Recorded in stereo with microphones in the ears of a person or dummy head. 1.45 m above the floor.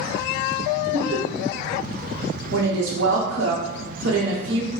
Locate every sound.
0.9 s laughter: 40° right (ahead or behind), 1.0 m
2.5 s a woman speaking: 65° right (ahead or behind), 0.8 m